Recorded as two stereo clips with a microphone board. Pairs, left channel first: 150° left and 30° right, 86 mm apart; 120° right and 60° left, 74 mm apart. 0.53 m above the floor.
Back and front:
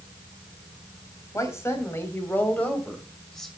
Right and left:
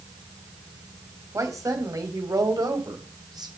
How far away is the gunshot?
I don't hear a gunshot.